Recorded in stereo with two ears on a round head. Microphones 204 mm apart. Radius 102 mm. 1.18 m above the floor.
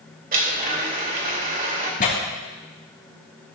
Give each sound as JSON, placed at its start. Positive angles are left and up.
{"t": 0.3, "sound": "a blender", "side_deg": -40, "distance_m": 2.0}
{"t": 2.0, "sound": "tearing paper", "side_deg": 35, "distance_m": 3.5}